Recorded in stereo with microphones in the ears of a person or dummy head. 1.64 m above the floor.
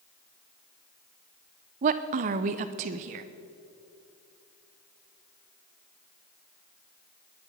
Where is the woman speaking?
35° right (ahead or behind), 0.6 m.